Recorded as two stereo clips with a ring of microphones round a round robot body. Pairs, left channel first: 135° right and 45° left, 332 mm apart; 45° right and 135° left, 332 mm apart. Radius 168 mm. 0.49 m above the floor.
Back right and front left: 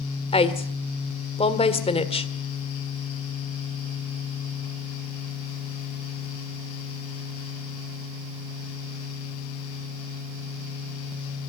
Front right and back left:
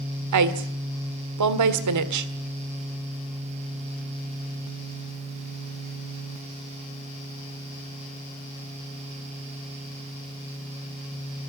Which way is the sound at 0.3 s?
155° left.